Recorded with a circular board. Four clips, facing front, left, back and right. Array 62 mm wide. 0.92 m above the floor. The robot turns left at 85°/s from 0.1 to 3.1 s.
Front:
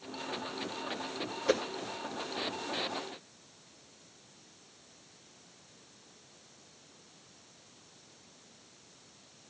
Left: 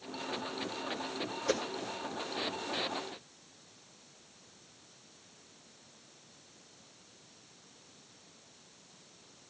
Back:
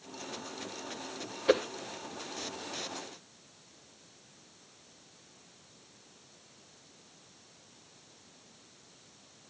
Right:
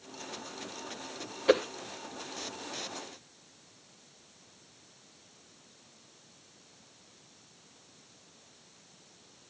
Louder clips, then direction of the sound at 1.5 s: Right 9 dB, back 4 dB; 110° right.